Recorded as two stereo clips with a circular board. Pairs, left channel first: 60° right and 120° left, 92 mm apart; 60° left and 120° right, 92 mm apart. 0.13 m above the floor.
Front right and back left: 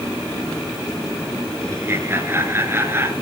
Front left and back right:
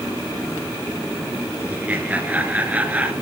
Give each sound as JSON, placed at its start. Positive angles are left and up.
{"t": 1.7, "sound": "laughter", "azimuth_deg": 170, "distance_m": 2.0}